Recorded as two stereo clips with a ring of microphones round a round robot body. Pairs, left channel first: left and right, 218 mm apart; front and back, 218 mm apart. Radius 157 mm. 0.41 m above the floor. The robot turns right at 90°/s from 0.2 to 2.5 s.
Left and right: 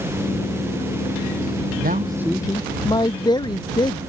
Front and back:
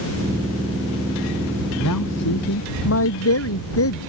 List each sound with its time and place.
1.8 s a man speaking: 45° right; by 4.0 s 20° left